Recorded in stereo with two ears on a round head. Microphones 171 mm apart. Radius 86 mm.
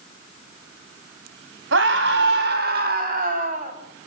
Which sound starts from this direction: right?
A scream, at 1.7 s.